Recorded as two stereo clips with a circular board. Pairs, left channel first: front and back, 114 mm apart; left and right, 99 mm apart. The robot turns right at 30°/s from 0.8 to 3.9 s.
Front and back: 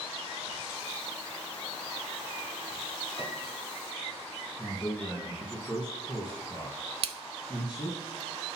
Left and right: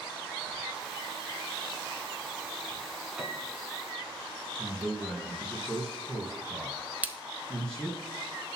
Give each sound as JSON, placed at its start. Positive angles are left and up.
{"t": 3.2, "sound": "a piano", "azimuth_deg": -5, "distance_m": 1.5}
{"t": 4.6, "sound": "a man speaking", "azimuth_deg": 10, "distance_m": 1.9}
{"t": 7.0, "sound": "a splash", "azimuth_deg": -160, "distance_m": 0.7}